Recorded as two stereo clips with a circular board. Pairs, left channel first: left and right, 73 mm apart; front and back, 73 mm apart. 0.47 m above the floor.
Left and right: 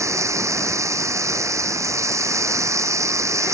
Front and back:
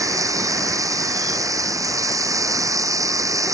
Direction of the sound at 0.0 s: 140° right.